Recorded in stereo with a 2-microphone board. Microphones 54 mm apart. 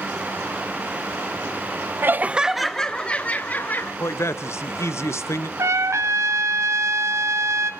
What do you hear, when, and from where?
2.0 s laughter: 40° right (ahead or behind), 0.8 m; by 3.9 s 35° left (ahead or behind), 1.9 m
4.0 s a man speaking: 55° left (ahead or behind), 1.1 m
5.6 s a trumpet: 60° right (ahead or behind), 1.5 m